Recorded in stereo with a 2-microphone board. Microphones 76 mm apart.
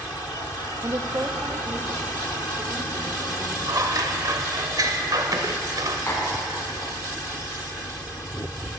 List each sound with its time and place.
0.8 s a woman speaking: 50° right (ahead or behind), 1.3 m; by 3.6 s 15° right (ahead or behind), 3 m
3.7 s scissors: 50° right (ahead or behind), 1.1 m
6.1 s tapping: 40° left (ahead or behind), 6 m